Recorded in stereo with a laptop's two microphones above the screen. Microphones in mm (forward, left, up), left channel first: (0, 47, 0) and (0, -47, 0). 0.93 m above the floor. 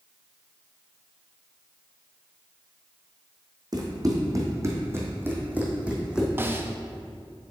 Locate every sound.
3.7 s running footsteps: 45° right (ahead or behind), 2 m; by 6.3 s 5° right (ahead or behind), 2 m
6.4 s a snare drum: 25° right (ahead or behind), 0.6 m